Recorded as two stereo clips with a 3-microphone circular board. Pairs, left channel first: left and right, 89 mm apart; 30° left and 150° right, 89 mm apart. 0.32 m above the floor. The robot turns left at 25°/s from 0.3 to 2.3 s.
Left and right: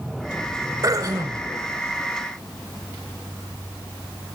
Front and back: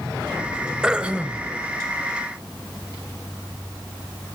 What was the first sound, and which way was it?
Throat clearing, 70° right.